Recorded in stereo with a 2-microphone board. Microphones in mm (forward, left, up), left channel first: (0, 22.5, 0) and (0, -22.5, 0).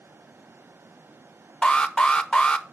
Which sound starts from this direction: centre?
An alarm, at 1.6 s.